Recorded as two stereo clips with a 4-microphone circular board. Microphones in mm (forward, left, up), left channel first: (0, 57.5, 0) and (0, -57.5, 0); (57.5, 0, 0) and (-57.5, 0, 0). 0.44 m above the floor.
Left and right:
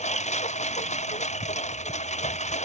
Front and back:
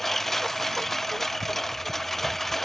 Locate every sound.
0.0 s a lawn mower: 90° left